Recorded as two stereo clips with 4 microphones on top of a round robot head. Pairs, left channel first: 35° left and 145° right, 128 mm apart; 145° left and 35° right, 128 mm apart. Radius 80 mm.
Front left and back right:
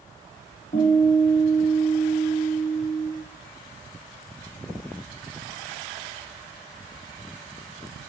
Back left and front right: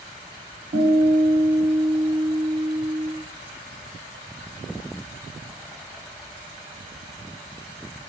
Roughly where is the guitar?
Ahead.